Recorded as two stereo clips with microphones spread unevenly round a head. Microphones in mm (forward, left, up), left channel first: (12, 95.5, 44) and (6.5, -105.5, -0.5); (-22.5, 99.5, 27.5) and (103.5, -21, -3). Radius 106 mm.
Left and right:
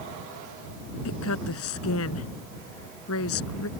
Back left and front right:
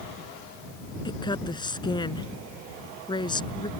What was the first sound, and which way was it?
A woman speaking, 70° left.